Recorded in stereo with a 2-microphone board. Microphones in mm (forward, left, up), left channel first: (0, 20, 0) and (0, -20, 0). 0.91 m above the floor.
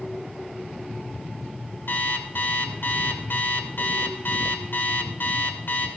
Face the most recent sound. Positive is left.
turn(degrees=65)  # may be behind; listen again after turning